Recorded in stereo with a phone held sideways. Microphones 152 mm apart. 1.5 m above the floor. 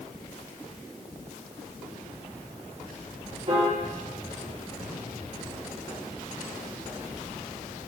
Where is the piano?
45° right (ahead or behind), 1.9 m.